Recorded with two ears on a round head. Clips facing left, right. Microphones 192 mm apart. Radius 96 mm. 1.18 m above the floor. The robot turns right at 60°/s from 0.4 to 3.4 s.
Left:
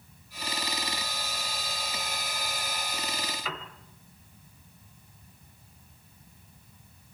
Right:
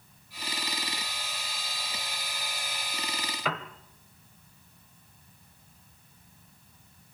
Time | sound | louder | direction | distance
3.5 | a piano | right 5 dB | 55° right (ahead or behind) | 1.7 m